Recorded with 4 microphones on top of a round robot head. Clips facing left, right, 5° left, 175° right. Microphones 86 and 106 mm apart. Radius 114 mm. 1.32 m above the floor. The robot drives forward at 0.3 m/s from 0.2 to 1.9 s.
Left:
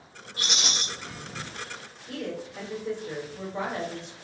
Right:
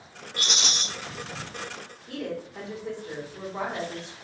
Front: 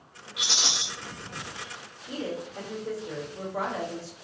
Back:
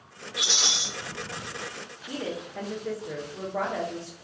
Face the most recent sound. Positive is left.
turn(degrees=-150)